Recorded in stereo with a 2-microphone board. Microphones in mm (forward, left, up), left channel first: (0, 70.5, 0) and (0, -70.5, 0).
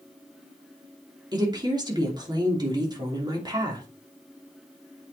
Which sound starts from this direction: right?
A woman speaking, at 1.3 s.